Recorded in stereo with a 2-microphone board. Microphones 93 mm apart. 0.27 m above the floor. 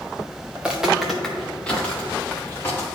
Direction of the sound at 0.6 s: 15° right (ahead or behind).